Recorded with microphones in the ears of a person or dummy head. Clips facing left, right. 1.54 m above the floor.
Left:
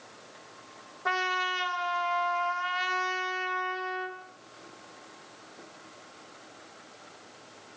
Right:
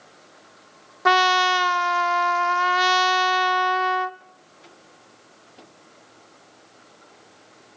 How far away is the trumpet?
About 0.5 m.